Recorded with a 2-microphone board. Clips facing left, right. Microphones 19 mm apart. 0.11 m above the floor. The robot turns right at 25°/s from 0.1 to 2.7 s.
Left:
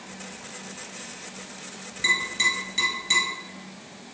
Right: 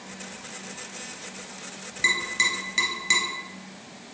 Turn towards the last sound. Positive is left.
turn(degrees=-25)  # may be behind; listen again after turning